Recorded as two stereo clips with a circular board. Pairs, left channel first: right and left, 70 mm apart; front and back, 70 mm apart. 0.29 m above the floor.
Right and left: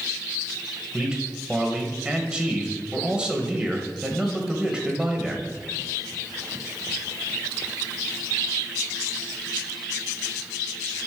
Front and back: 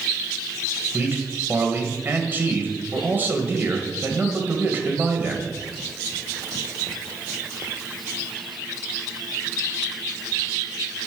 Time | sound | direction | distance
0.9 | a man speaking | 155° left | 1.2 m